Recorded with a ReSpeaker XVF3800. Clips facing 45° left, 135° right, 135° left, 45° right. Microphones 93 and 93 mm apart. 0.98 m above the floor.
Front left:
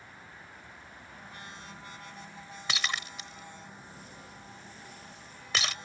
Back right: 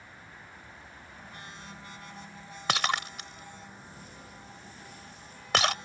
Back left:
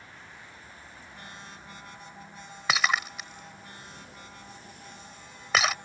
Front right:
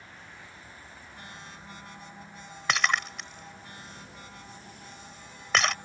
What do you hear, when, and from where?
2.7 s breaking glass: 140° right